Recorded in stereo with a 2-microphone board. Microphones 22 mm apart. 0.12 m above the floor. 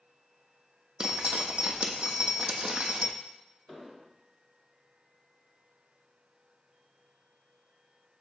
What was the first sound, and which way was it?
Dripping, 30° right (ahead or behind).